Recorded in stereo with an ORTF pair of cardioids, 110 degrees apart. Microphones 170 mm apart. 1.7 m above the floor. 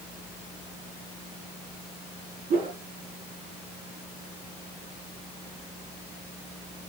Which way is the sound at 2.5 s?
60° right.